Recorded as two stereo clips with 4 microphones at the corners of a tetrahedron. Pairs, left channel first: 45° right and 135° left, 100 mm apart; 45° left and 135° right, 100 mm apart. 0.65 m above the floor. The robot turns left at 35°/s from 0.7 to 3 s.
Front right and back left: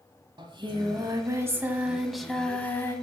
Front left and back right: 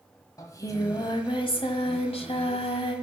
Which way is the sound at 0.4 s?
100° left.